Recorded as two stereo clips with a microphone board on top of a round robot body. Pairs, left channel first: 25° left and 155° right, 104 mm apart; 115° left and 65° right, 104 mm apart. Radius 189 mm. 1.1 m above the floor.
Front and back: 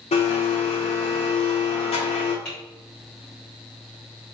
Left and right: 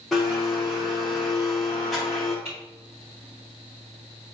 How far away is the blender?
About 0.6 m.